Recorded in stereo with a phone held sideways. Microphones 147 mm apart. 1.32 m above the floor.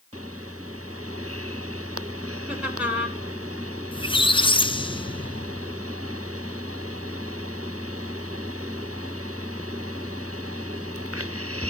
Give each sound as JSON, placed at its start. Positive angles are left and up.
{"t": 2.5, "sound": "laughter", "side_deg": -5, "distance_m": 4.5}
{"t": 3.9, "sound": "a squeak", "side_deg": 35, "distance_m": 0.5}